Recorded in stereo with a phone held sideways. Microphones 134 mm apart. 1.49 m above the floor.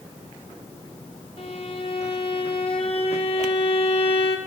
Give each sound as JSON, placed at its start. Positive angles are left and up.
{"t": 1.4, "sound": "a violin", "side_deg": 45, "distance_m": 2.0}